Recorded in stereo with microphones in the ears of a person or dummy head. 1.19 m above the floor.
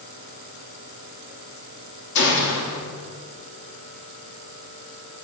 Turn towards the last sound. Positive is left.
turn(degrees=65)  # may be behind; listen again after turning